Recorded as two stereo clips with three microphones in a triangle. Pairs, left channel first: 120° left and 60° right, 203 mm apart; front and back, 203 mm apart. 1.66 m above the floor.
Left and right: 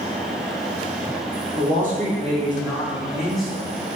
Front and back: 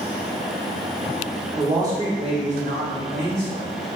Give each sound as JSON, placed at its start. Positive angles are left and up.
{"t": 1.6, "sound": "a man speaking", "azimuth_deg": -100, "distance_m": 1.5}